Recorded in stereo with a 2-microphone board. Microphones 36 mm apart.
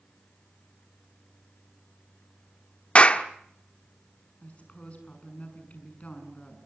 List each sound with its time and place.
3.0 s a clap: 35° left (ahead or behind), 1.2 m
4.4 s a woman speaking: 40° left (ahead or behind), 7 m